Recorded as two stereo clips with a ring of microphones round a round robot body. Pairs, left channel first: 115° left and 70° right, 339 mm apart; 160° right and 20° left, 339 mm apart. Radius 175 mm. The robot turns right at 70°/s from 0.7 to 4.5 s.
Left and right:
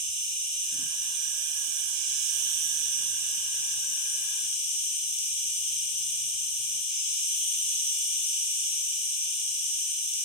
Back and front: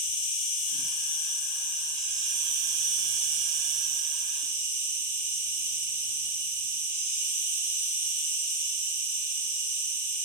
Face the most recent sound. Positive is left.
turn(degrees=105)